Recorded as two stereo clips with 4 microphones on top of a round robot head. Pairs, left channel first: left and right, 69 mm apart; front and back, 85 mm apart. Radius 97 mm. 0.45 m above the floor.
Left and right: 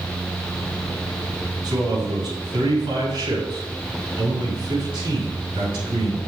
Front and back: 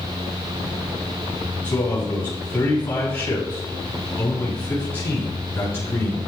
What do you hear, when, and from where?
1.6 s a man speaking: 70° right, 5.5 m